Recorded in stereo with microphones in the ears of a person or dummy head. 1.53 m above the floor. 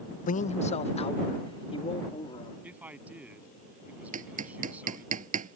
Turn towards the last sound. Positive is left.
turn(degrees=-45)  # may be behind; listen again after turning